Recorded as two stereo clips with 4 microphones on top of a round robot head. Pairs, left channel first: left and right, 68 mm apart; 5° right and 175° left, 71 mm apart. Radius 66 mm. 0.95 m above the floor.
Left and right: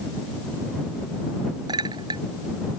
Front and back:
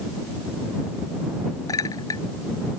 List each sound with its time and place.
1.7 s a clink: 55° right